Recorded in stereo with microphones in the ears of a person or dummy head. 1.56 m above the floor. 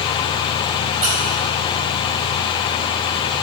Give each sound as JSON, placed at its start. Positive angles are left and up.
{"t": 1.0, "sound": "a squeak", "side_deg": -35, "distance_m": 3.0}